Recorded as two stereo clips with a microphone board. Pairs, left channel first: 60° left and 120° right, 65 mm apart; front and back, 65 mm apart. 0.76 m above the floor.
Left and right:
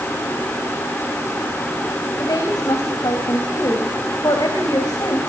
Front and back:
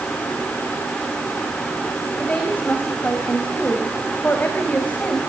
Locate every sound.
2.2 s a woman speaking: 70° left, 4 m